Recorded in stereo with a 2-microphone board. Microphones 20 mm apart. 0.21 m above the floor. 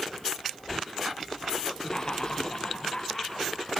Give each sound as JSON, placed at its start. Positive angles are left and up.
{"t": 1.8, "sound": "laughter", "side_deg": 20, "distance_m": 5.0}